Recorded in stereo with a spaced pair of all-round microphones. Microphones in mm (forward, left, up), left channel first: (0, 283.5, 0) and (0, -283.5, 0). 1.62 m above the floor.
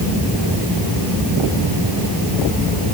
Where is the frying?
No frying in this recording.